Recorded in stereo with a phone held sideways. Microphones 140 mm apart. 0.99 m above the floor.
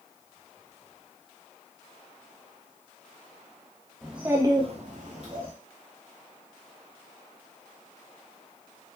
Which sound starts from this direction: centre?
A child speaking, at 4.0 s.